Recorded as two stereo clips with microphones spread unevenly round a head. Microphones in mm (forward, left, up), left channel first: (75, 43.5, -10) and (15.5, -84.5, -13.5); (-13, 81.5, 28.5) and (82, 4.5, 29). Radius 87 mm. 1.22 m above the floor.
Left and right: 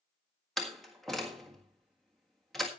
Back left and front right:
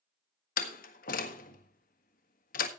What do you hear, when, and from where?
0.6 s a door slam: 155° left, 1.5 m